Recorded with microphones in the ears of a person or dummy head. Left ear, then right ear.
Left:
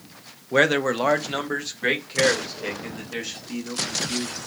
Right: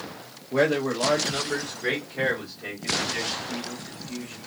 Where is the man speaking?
40° left (ahead or behind), 0.7 m; by 4.4 s 70° left (ahead or behind), 2.5 m.